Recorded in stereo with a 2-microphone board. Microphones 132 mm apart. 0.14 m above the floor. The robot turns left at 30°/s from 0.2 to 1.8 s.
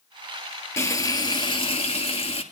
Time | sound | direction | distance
0.8 | frying | 155° left | 1.5 m